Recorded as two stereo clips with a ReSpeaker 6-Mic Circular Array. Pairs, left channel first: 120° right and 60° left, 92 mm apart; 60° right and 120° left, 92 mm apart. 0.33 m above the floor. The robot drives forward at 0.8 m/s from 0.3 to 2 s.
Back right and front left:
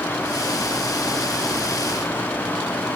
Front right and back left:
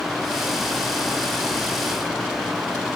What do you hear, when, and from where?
Only background noise.